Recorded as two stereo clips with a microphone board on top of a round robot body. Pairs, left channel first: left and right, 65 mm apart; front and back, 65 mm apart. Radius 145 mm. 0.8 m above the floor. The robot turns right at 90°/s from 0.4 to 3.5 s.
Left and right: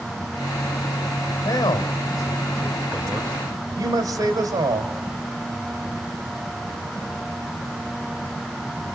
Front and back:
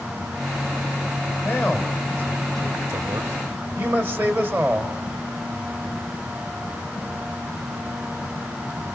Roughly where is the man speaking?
Ahead left.